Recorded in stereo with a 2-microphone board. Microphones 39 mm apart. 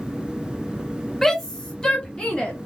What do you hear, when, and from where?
1.2 s a shout: 10° left (ahead or behind), 1.6 m; by 2.5 s 20° left (ahead or behind), 2.0 m